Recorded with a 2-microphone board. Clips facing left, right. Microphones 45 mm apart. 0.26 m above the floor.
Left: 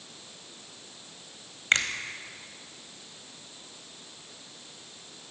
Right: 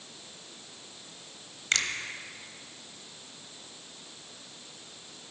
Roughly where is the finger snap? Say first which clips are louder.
Left 4 dB; left.